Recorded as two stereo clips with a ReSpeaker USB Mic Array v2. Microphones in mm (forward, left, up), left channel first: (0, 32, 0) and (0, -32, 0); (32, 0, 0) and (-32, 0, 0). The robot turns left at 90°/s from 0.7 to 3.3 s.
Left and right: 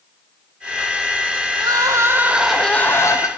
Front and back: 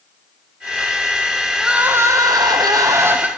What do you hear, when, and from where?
1.6 s crying: 90° right, 0.5 m; by 3.3 s 110° left, 0.5 m